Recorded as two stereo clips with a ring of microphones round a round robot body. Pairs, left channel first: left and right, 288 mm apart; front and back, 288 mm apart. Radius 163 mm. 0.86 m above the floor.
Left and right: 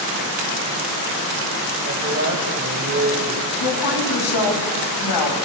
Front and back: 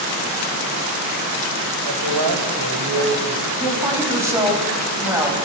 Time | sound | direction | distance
1.9 | a man speaking | 150° right | 3.5 m
3.6 | a woman speaking | 100° left | 7 m